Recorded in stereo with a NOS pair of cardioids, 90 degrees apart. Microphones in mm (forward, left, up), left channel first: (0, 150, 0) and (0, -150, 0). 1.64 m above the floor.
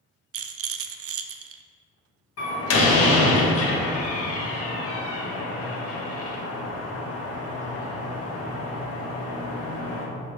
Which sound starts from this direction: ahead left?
A door slam, at 2.4 s.